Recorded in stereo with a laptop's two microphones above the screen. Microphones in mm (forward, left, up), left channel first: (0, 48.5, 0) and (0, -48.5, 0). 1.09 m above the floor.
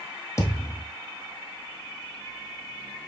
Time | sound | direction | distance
0.4 | a thud | 30° left (ahead or behind) | 1.4 m